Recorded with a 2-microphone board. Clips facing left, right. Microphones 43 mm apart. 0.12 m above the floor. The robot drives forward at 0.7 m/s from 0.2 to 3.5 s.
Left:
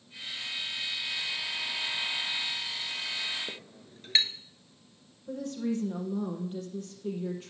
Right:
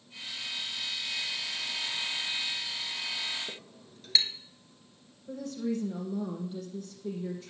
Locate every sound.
3.5 s a clink: 35° left (ahead or behind), 0.9 m
5.3 s a woman speaking: 55° left (ahead or behind), 4 m